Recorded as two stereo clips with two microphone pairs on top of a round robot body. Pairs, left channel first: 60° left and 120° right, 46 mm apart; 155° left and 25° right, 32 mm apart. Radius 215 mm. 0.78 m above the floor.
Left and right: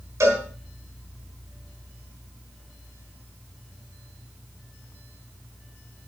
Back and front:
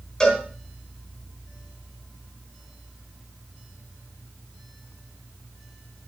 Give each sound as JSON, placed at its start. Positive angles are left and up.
{"t": 0.2, "sound": "a cowbell", "azimuth_deg": -135, "distance_m": 3.5}